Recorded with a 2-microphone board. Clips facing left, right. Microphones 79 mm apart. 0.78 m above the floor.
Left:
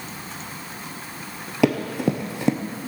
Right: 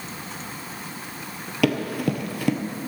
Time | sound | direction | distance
1.6 | running footsteps | 25° left (ahead or behind) | 1.0 m